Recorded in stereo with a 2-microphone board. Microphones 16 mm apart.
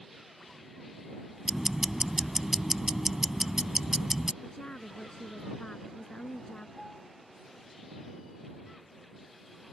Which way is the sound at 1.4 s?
20° right (ahead or behind).